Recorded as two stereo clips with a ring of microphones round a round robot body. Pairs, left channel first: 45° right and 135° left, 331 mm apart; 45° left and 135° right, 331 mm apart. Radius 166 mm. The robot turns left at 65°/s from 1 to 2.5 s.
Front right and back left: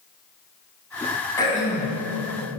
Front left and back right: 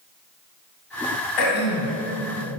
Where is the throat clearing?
35° left, 2.5 m; by 2.0 s straight ahead, 2.5 m.